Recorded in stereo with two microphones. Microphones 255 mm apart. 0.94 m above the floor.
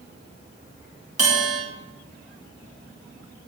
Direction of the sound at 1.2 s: 75° right (ahead or behind).